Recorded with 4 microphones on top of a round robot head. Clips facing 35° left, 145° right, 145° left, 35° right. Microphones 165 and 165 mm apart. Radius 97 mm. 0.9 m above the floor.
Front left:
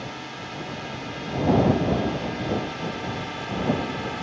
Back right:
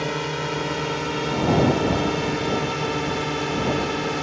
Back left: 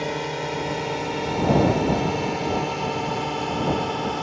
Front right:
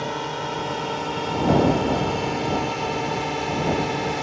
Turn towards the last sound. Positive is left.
turn(degrees=-115)